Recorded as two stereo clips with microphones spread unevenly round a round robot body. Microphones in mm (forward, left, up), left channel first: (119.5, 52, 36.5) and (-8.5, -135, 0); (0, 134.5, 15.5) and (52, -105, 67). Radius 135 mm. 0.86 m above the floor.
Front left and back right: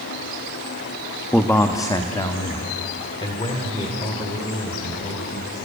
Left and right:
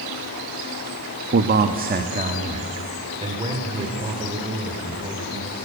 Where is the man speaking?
30° right, 1.1 m; by 5.5 s 5° right, 4.5 m.